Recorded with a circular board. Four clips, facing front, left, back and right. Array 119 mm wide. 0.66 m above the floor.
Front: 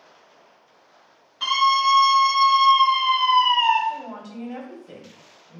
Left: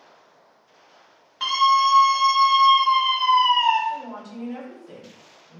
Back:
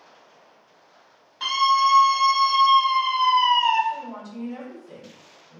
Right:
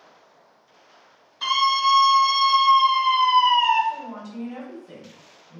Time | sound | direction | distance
1.4 | a scream | 90° left | 1.4 m
3.9 | a woman speaking | 15° left | 1.0 m